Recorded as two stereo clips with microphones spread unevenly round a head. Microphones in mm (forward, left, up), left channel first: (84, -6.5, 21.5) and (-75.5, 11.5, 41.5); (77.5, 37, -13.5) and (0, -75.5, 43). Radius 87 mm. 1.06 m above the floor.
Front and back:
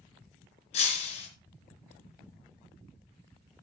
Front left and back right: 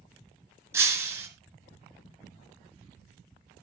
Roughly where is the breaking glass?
Ahead right.